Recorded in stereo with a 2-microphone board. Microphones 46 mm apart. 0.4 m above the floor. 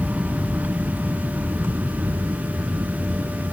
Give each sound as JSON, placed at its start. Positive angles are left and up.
{"t": 0.0, "sound": "an aircraft", "side_deg": -30}